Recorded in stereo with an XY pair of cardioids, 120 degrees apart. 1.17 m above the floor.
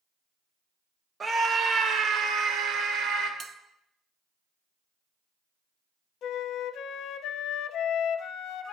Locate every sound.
1.2 s a scream: 30° right, 1.0 m; by 3.3 s 70° right, 2 m
3.4 s a bell: 45° right, 0.8 m
6.2 s a flute: 70° left, 0.6 m